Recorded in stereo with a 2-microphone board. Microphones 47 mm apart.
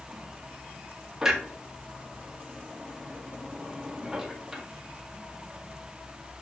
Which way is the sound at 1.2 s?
5° right (ahead or behind).